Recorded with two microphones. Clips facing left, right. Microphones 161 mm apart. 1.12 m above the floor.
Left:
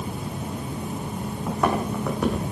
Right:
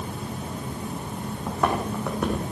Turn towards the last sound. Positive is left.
turn(degrees=0)  # may be behind; listen again after turning